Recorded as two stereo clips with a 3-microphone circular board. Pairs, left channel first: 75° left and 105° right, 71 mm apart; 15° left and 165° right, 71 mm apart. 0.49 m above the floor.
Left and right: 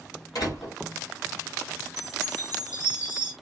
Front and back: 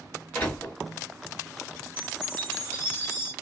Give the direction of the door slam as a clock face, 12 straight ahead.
9 o'clock.